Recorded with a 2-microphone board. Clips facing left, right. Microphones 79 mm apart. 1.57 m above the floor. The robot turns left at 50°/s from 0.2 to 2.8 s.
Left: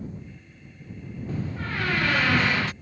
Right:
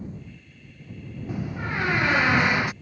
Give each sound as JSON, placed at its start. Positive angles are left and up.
{"t": 1.3, "sound": "a door slam", "side_deg": -15}